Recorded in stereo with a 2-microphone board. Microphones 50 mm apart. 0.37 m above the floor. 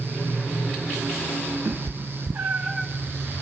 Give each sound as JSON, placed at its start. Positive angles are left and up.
{"t": 1.6, "sound": "a cat meowing", "side_deg": -80, "distance_m": 1.2}